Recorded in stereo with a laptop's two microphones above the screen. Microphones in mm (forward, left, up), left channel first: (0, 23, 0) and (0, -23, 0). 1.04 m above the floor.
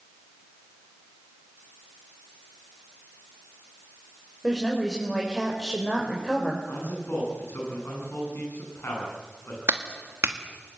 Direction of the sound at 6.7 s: 60° left (ahead or behind).